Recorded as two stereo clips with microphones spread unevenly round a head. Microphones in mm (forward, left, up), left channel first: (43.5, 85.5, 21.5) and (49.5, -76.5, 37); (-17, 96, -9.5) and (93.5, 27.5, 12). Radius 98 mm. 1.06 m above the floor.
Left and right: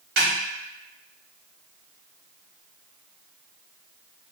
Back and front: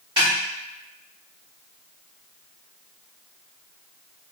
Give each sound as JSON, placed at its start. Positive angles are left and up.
{"t": 0.2, "sound": "a snare drum", "azimuth_deg": -95, "distance_m": 1.2}